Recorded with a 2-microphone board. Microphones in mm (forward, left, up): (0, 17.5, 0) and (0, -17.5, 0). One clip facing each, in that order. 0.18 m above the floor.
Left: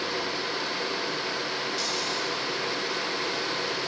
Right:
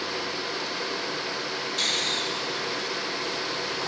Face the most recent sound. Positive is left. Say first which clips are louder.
# right 3 dB
turn(degrees=-65)  # may be behind; listen again after turning